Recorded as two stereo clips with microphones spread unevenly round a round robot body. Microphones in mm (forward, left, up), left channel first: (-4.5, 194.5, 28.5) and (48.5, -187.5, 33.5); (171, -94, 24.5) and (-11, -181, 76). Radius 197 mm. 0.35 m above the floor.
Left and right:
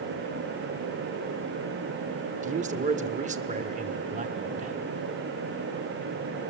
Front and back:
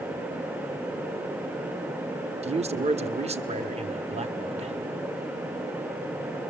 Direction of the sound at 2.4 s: 110° right.